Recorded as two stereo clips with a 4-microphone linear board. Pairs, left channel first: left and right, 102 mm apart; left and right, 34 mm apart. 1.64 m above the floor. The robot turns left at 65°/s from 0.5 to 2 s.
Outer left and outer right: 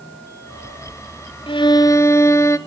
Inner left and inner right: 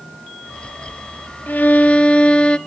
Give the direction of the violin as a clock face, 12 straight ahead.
10 o'clock.